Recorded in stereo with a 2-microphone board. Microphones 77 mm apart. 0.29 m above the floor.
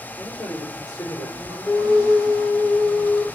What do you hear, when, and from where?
0.2 s a man speaking: 45° left (ahead or behind), 5 m
1.6 s a flute: 40° left (ahead or behind), 4.5 m